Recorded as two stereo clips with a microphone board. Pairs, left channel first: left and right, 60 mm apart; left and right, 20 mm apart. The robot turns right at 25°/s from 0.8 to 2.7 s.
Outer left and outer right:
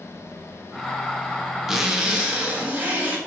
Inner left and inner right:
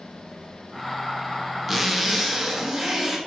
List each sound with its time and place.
1.7 s a zipper: 5° right (ahead or behind), 0.6 m; by 3.2 s 20° right (ahead or behind), 0.6 m